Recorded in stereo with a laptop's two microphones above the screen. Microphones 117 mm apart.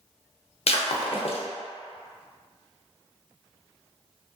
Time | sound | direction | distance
0.7 | breaking glass | 60° left (ahead or behind) | 0.5 m